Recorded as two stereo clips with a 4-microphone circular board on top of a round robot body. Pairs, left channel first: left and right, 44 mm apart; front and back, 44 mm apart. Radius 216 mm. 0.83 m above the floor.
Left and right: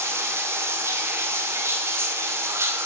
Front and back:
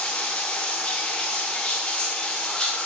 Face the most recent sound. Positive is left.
turn(degrees=-75)